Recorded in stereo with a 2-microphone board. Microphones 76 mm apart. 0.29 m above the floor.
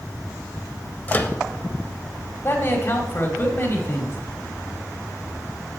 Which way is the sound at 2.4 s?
35° left (ahead or behind).